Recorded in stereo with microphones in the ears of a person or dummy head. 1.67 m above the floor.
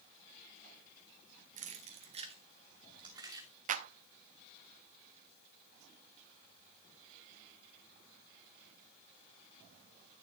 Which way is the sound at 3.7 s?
40° right (ahead or behind).